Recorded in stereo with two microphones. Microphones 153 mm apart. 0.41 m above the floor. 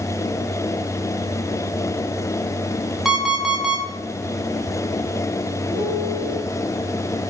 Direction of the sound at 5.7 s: 35° right (ahead or behind).